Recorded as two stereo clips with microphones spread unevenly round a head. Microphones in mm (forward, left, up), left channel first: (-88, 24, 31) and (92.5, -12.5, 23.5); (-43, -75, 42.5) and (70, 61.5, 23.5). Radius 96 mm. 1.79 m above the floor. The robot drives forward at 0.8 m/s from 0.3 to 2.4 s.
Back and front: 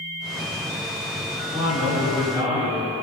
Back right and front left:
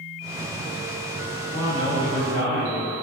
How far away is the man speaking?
About 6.5 m.